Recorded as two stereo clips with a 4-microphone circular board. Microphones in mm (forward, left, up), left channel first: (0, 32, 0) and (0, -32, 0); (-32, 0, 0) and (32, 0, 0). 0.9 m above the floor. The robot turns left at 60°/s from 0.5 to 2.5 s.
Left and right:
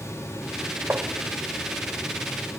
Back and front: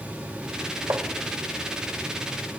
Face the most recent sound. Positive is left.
turn(degrees=-135)